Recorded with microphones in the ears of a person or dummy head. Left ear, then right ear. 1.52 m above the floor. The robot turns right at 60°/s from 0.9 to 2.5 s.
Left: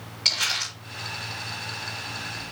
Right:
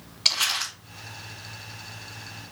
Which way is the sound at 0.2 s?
25° right (ahead or behind).